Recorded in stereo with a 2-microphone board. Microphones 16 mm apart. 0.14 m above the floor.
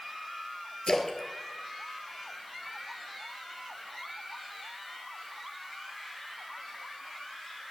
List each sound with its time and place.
0.9 s a splash: 40° left (ahead or behind), 1.9 m